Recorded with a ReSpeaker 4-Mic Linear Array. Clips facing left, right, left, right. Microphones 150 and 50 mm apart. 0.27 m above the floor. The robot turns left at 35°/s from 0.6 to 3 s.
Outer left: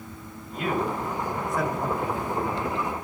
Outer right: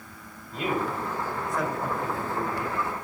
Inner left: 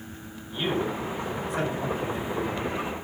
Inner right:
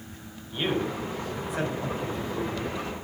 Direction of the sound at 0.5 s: 150° right.